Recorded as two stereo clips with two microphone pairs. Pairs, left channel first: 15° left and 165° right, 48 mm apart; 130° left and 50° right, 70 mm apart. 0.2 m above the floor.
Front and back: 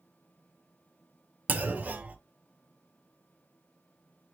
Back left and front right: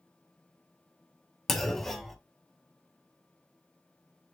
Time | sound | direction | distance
1.5 | a clunk | 140° right | 0.5 m